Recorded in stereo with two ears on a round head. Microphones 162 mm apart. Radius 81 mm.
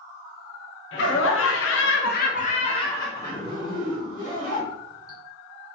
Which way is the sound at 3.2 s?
50° right (ahead or behind).